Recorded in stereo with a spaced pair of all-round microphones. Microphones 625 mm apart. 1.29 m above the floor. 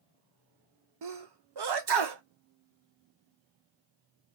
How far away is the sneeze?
About 0.5 m.